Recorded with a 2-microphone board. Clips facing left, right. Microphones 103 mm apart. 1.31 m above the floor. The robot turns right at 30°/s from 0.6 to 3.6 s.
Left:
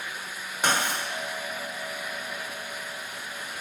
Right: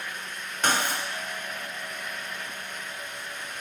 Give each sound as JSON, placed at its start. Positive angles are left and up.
{"t": 0.6, "sound": "writing", "side_deg": 10, "distance_m": 1.1}